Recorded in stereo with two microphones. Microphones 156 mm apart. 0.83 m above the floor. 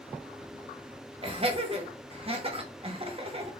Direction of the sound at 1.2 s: 35° right (ahead or behind).